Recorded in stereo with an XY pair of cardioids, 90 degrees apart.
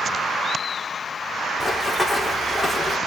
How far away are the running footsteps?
About 4.5 m.